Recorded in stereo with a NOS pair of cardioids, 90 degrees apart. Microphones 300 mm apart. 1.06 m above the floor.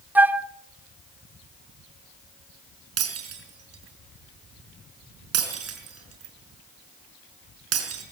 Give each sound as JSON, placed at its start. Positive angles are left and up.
{"t": 0.1, "sound": "a flute", "azimuth_deg": -5, "distance_m": 0.7}
{"t": 3.0, "sound": "breaking glass", "azimuth_deg": -60, "distance_m": 5.0}